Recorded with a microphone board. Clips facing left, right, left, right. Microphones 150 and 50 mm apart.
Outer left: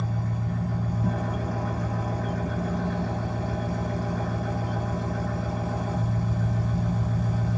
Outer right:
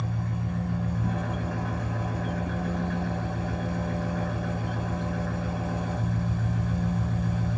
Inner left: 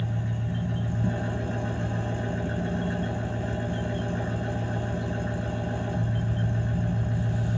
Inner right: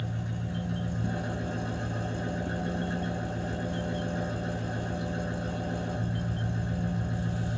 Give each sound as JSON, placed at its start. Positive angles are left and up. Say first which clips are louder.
{"t": 0.0, "sound": "an engine running", "louder": "outer left 1 dB, inner left 4 dB", "side_deg": 40, "distance_m": 0.9}